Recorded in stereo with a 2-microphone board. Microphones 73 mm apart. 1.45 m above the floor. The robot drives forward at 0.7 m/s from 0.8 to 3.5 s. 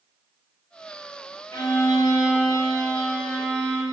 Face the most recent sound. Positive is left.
turn(degrees=40)  # may be behind; listen again after turning